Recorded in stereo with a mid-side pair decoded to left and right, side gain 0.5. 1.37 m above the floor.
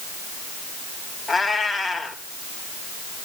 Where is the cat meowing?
10° left, 3.5 m.